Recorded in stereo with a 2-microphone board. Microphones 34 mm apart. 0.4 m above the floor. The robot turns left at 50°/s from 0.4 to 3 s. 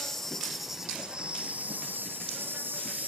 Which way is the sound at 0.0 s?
10° left.